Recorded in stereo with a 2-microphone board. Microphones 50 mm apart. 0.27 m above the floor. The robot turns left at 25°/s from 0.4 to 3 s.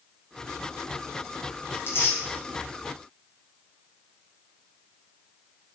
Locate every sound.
1.7 s tearing paper: 55° left (ahead or behind), 1.2 m; by 2.2 s 50° left (ahead or behind), 1.2 m